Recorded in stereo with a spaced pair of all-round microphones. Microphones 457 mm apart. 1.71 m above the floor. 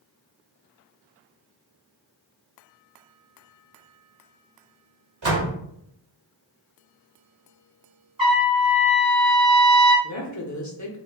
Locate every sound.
5.2 s a door slam: 70° right (ahead or behind), 1.2 m
8.2 s a trumpet: 10° right (ahead or behind), 1.6 m
10.0 s a woman speaking: 40° left (ahead or behind), 0.6 m